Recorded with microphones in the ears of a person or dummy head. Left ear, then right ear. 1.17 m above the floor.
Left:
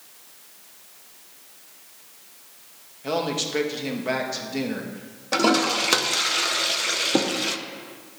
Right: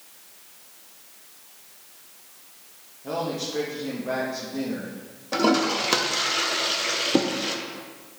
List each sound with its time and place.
3.0 s a man speaking: 70° left (ahead or behind), 1.5 m
5.3 s a toilet flushing: 15° left (ahead or behind), 0.6 m